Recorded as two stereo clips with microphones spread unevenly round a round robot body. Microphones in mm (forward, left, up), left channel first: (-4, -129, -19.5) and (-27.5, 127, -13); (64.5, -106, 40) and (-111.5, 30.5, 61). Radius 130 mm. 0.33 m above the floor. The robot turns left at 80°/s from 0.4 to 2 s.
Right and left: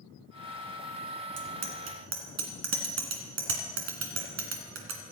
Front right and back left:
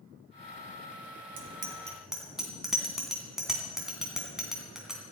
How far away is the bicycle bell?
About 2.5 m.